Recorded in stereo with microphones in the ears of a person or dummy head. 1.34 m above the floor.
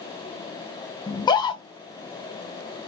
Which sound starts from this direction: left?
A scream, at 1.1 s.